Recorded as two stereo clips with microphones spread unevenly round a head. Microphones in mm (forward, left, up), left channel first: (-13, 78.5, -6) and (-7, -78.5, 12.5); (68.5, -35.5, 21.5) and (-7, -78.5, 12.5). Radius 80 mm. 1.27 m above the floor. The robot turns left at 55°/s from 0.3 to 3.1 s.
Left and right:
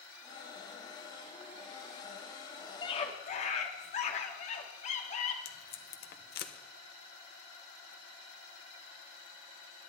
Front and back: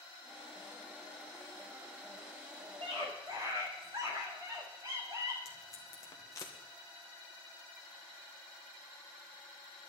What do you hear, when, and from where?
2.8 s a scream: 155° left, 2.5 m; by 5.3 s 140° left, 2.5 m
5.5 s tape being pulled: 95° left, 1.3 m